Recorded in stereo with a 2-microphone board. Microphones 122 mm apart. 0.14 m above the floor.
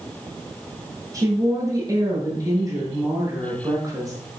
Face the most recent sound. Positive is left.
turn(degrees=-30)  # may be behind; listen again after turning